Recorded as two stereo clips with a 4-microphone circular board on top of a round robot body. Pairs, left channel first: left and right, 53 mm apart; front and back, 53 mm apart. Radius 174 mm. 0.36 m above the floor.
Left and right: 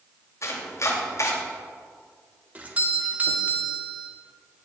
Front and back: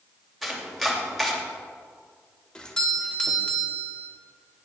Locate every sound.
0.4 s chopping: 90° left, 3 m
2.5 s a doorbell: 60° right, 2 m